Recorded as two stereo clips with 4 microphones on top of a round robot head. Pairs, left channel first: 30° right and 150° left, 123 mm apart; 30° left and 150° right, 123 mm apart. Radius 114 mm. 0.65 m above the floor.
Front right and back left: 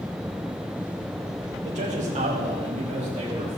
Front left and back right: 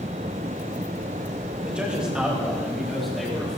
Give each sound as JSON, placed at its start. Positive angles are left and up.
{"t": 1.6, "sound": "a man speaking", "azimuth_deg": 130, "distance_m": 3.5}